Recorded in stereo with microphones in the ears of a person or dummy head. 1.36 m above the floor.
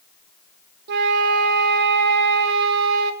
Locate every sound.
0.9 s a flute: 55° right (ahead or behind), 0.7 m